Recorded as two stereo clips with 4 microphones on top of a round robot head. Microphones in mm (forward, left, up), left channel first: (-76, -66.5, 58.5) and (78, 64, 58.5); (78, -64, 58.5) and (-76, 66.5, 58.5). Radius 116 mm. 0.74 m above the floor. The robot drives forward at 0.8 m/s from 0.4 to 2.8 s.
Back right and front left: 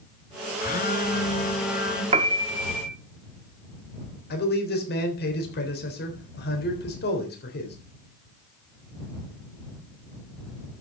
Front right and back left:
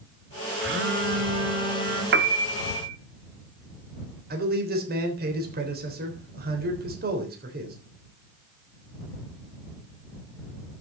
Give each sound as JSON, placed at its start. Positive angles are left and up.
{"t": 0.6, "sound": "a phone buzzing", "azimuth_deg": 170, "distance_m": 1.4}
{"t": 2.1, "sound": "a piano", "azimuth_deg": 100, "distance_m": 0.8}
{"t": 4.3, "sound": "a man speaking", "azimuth_deg": 180, "distance_m": 3.5}